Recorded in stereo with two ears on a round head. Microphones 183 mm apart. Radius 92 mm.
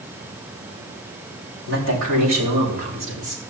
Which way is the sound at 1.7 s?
75° right (ahead or behind).